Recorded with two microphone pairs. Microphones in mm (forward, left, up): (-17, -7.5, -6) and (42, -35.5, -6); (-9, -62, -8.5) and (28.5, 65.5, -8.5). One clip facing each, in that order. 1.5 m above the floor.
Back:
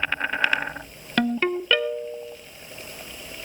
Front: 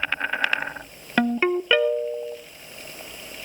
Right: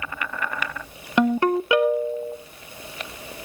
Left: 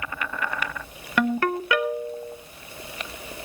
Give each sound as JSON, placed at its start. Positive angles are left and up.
{"t": 1.2, "sound": "a ringtone", "azimuth_deg": -75, "distance_m": 0.6}